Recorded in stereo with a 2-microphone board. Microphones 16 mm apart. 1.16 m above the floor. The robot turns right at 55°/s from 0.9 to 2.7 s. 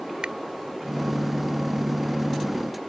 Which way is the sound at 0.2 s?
80° right.